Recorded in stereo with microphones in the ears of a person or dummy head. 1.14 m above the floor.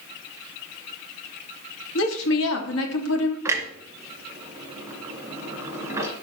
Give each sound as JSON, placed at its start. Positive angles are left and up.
{"t": 1.9, "sound": "a woman speaking", "side_deg": 70, "distance_m": 3.0}
{"t": 3.5, "sound": "a clunk", "side_deg": -15, "distance_m": 2.0}